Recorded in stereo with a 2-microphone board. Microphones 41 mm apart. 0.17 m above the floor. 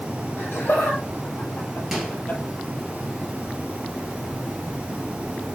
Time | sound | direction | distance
0.4 | laughter | 60° left (ahead or behind) | 5 m
1.9 | a microwave | 10° right (ahead or behind) | 2.5 m